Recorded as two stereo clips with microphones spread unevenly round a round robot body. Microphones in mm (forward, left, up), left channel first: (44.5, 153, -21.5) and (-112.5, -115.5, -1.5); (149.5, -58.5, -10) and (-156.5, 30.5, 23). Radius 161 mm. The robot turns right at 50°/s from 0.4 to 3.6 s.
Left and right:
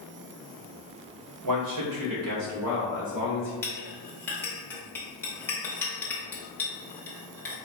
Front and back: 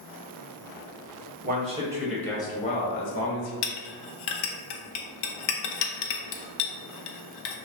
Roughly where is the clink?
Ahead right.